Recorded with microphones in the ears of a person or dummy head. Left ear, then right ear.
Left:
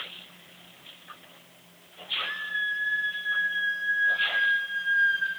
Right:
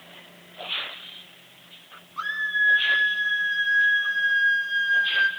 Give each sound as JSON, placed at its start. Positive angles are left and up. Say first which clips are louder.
{"t": 2.2, "sound": "a scream", "louder": "right 7 dB", "side_deg": -75, "distance_m": 5.0}